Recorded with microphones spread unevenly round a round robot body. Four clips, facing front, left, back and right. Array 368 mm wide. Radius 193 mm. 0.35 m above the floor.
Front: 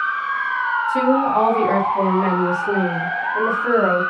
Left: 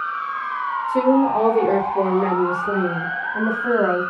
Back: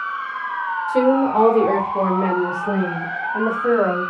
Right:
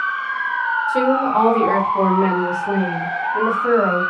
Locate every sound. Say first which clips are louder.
0.9 s a woman speaking: left 2 dB, back 2 dB; 175° left, 1.2 m; by 4.0 s 155° right, 2.5 m